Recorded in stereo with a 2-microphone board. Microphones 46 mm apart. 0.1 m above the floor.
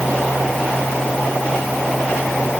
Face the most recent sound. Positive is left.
No sound to turn to.